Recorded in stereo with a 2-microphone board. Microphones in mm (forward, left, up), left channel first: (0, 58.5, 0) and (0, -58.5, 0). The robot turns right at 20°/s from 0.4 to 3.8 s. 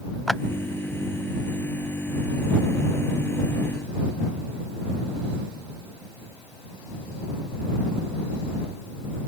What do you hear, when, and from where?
0.3 s a clap: centre (ahead or behind)